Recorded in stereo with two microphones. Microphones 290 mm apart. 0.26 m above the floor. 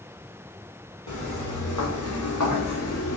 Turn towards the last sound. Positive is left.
turn(degrees=55)  # may be behind; listen again after turning